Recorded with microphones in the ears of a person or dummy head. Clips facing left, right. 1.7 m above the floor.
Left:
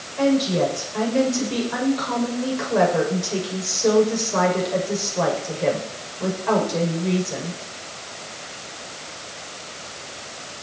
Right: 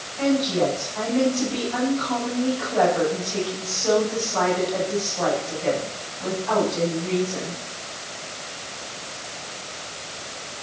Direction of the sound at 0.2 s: 85° left.